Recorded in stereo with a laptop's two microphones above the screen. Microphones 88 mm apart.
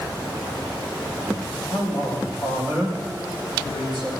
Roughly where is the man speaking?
Centre.